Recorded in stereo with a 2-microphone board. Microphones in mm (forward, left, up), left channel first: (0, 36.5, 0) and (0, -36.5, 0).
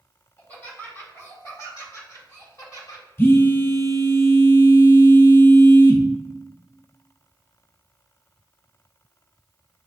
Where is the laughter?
25° left (ahead or behind), 1.7 m; by 3.0 s 55° left (ahead or behind), 3 m.